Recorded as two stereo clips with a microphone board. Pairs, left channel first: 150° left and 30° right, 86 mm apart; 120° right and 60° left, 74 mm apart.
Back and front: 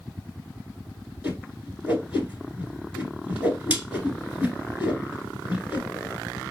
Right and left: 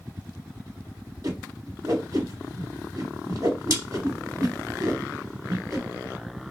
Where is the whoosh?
40° left, 1.4 m.